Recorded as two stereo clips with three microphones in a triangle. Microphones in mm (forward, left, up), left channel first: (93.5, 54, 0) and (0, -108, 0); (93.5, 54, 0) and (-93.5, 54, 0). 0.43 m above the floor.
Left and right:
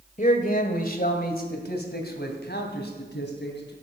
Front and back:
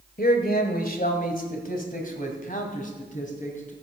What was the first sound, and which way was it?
A man speaking, 25° left.